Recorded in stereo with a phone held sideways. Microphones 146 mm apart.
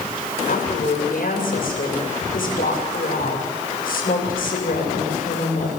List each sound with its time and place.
0.5 s a woman speaking: 75° left (ahead or behind), 7 m